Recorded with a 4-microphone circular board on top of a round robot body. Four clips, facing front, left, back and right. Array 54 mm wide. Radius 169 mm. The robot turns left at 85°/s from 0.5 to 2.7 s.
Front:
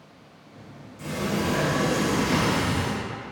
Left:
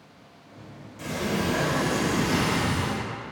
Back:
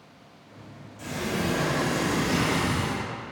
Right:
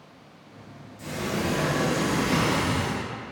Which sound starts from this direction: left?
A sliding door, at 1.0 s.